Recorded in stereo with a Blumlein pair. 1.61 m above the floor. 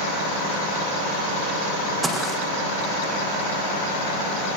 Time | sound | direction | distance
2.0 | footsteps | 5° right | 5.5 m